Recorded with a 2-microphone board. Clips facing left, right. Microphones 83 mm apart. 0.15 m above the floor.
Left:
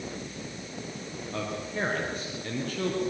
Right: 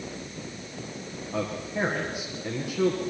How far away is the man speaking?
About 4.5 m.